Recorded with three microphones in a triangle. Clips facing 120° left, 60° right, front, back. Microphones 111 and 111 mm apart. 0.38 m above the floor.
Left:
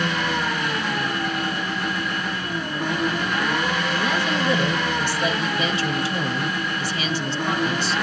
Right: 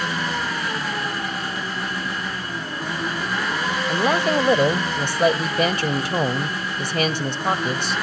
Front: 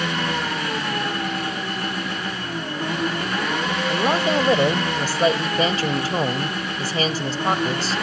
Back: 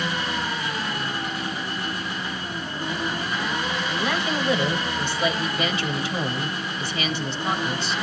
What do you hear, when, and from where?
0.0 s an engine running: 25° left, 8.5 m
3.9 s a woman speaking: 40° right, 1.5 m